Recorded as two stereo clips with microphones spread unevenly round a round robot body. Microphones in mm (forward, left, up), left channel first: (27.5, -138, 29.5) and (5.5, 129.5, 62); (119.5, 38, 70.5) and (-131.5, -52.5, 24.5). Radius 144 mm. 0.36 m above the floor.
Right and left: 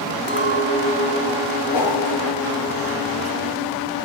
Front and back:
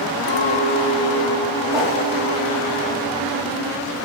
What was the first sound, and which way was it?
A clink, 40° right.